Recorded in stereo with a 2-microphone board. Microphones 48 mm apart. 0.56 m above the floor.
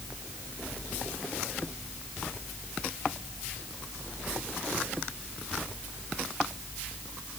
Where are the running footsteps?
I don't hear running footsteps.